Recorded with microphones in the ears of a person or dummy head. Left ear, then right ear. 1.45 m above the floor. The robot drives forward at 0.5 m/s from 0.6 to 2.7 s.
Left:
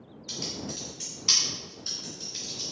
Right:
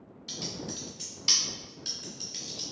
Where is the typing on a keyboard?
45° right (ahead or behind), 1.9 m; by 2.7 s 55° right (ahead or behind), 1.6 m.